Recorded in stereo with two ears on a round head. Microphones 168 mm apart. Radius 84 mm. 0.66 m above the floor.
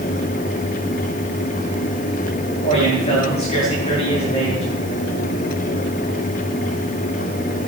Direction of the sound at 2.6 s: 35° left (ahead or behind).